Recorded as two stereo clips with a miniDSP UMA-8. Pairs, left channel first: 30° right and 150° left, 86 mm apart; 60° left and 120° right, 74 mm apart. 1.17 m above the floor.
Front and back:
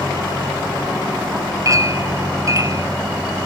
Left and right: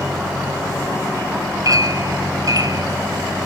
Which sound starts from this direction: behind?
A clink, at 1.6 s.